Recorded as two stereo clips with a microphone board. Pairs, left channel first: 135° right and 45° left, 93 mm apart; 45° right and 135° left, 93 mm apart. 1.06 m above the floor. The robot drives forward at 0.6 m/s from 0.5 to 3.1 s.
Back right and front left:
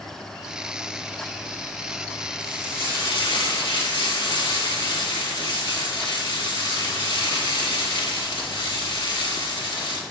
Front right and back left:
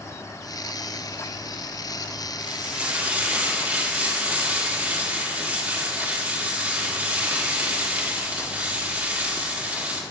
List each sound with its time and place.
2.4 s frying: 150° right, 1.7 m; by 10.0 s 155° right, 2 m